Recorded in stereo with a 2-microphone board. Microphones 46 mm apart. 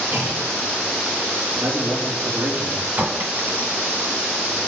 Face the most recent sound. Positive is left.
turn(degrees=-40)  # may be behind; listen again after turning